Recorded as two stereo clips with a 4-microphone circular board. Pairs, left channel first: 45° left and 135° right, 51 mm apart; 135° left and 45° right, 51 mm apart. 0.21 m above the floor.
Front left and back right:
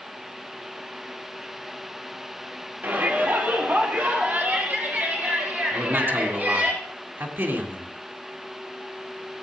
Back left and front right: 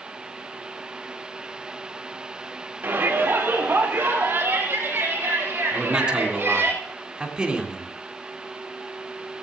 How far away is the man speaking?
About 2.5 m.